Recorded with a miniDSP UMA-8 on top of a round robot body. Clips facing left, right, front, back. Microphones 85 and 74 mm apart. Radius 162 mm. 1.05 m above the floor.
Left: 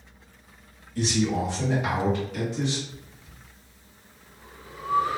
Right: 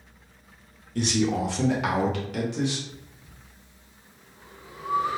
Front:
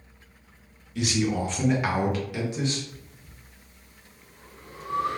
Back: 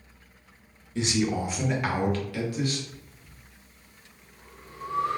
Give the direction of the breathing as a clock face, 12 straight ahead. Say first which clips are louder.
Even, front 1 dB; 1 o'clock.